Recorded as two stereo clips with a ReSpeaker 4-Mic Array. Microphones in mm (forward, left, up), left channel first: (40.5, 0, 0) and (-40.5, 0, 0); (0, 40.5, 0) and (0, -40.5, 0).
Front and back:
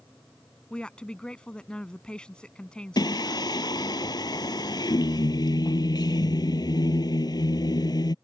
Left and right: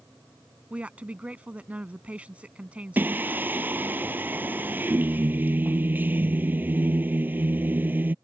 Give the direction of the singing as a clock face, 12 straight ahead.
1 o'clock.